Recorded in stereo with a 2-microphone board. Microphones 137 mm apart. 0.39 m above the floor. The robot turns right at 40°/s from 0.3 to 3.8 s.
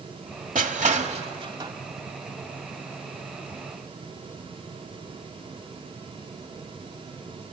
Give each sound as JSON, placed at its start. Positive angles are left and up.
{"t": 0.6, "sound": "crushing", "side_deg": -70, "distance_m": 1.0}